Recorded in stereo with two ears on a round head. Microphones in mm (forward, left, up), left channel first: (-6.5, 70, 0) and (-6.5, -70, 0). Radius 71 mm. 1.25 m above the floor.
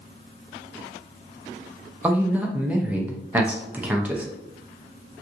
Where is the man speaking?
10° right (ahead or behind), 0.5 m.